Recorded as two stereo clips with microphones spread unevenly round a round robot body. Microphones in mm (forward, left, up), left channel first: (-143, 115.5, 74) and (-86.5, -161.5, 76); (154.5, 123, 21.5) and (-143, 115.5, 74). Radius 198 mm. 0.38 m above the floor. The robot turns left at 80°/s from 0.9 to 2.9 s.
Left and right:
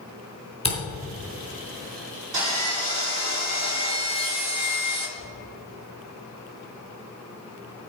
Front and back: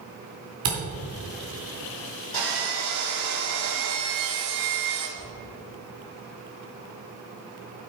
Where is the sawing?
70° right, 3 m; by 5.1 s 115° right, 3 m.